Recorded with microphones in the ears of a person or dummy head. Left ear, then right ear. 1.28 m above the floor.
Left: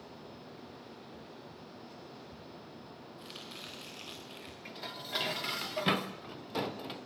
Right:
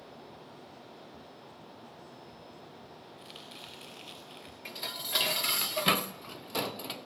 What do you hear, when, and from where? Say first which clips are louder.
3.2 s chopping: left 2 dB; centre (ahead or behind), 4 m
4.7 s dishes clattering: right 5 dB; 25° right (ahead or behind), 0.6 m